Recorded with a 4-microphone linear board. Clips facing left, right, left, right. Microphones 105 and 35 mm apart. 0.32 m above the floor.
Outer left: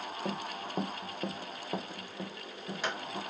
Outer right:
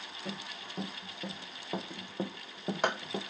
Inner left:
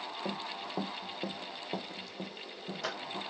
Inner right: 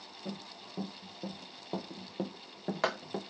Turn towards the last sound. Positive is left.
turn(degrees=-65)  # may be behind; listen again after turning